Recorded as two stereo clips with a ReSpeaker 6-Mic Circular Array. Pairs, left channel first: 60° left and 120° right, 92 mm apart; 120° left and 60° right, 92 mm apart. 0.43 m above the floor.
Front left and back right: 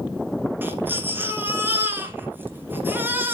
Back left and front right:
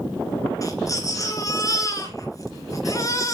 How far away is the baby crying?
About 1.8 m.